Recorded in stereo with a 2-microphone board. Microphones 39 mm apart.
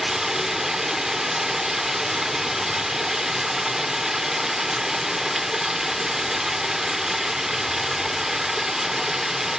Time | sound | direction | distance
0.0 | running water | 10° right (ahead or behind) | 0.9 m